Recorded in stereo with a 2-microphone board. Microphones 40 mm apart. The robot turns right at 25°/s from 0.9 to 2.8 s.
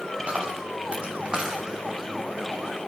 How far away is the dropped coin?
About 7.5 m.